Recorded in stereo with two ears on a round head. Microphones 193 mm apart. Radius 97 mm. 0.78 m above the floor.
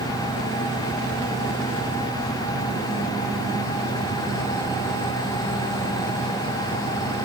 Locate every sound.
Only background noise.